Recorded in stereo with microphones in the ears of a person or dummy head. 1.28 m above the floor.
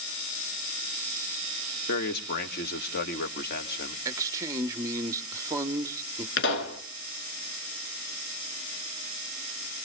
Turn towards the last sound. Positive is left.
turn(degrees=65)  # may be behind; listen again after turning